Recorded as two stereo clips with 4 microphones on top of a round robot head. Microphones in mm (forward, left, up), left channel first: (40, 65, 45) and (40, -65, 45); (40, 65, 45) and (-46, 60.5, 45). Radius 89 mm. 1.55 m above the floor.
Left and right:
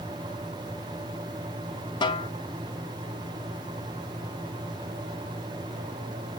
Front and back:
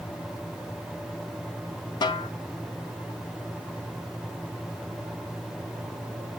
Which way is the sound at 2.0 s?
35° left.